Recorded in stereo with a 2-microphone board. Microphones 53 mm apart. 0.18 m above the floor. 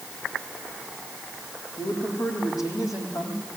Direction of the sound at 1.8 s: 80° left.